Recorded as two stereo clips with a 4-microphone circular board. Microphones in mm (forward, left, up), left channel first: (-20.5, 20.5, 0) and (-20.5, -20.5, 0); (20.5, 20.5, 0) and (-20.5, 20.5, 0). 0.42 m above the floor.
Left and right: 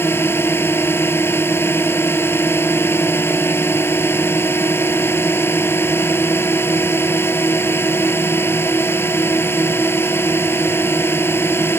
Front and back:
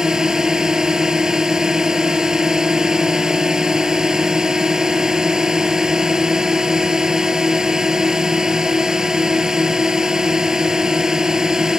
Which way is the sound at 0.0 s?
105° left.